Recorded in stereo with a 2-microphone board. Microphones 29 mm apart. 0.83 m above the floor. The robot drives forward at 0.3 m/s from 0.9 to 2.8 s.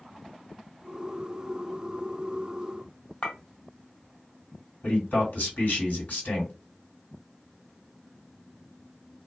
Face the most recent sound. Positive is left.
turn(degrees=75)  # may be behind; listen again after turning